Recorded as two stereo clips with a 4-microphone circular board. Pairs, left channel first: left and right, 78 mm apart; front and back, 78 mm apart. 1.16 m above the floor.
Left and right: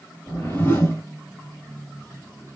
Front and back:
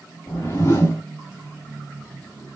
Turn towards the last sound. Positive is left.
turn(degrees=35)